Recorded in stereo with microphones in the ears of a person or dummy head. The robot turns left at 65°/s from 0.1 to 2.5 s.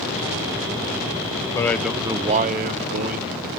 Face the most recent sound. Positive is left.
turn(degrees=-45)